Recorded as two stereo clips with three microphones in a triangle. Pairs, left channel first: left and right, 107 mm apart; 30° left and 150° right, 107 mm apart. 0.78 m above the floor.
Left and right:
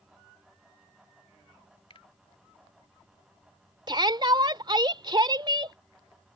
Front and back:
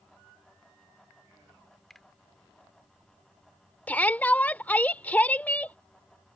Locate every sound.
1.9 s a finger snap: 115° left
3.9 s a shout: 45° right